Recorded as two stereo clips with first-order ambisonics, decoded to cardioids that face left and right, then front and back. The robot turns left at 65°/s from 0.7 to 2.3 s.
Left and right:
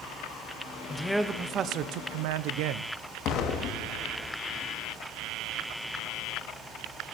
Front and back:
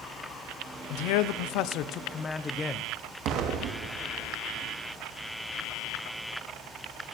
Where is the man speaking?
15° left, 1.0 m; by 2.9 s 75° right, 1.0 m.